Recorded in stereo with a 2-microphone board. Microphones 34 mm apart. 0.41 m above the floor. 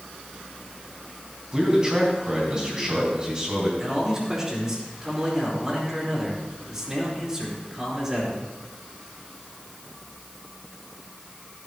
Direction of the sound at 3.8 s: 20° right (ahead or behind).